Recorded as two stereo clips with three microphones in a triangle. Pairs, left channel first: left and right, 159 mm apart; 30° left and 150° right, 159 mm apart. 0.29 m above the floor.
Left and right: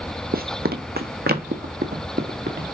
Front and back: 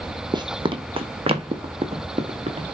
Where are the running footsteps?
85° right, 0.7 m; by 2.8 s 100° right, 2 m.